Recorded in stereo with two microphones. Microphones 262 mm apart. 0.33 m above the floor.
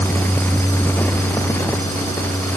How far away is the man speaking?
I don't hear a man speaking.